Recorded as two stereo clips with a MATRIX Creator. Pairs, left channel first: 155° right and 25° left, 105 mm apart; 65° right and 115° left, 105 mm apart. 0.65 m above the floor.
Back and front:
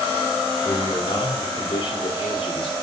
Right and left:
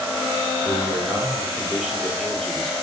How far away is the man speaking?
About 1.8 m.